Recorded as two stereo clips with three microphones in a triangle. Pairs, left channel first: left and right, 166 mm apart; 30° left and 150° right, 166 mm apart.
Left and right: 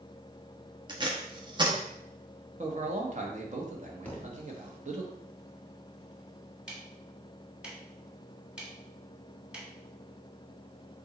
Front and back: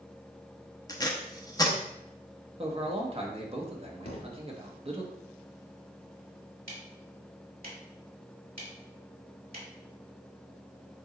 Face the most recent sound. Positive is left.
turn(degrees=-175)